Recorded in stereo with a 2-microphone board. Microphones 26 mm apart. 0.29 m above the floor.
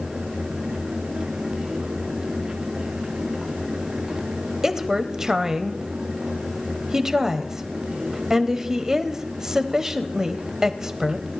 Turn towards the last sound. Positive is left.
turn(degrees=-25)  # may be behind; listen again after turning